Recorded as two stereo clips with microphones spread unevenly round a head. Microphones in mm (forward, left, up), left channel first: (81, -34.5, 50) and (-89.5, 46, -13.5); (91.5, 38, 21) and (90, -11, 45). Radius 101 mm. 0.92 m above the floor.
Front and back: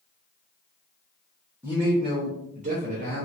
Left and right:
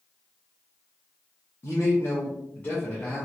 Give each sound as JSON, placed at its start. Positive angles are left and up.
{"t": 1.6, "sound": "a man speaking", "azimuth_deg": 80, "distance_m": 1.0}